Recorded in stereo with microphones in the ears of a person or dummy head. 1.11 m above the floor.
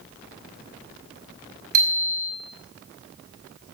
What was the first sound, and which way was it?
A bicycle bell, 50° right (ahead or behind).